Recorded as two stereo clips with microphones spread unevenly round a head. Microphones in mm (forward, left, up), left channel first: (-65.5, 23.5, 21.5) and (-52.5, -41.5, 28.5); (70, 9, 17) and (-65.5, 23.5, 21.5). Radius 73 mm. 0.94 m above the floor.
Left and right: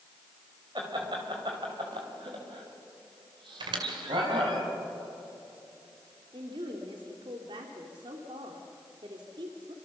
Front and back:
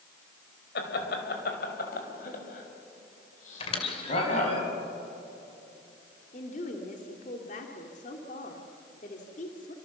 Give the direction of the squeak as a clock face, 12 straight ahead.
2 o'clock.